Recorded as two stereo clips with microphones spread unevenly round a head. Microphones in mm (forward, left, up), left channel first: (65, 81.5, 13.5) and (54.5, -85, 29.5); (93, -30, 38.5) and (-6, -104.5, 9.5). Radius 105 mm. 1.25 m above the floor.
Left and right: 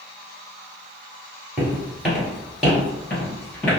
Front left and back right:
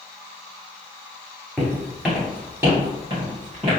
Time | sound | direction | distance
1.6 | footsteps | 25° right | 1.4 m